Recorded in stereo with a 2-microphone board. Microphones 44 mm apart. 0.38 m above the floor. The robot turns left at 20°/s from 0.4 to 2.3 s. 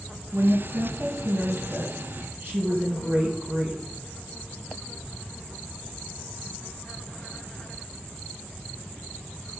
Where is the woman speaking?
90° right, 2.5 m; by 3.8 s 125° right, 2.5 m.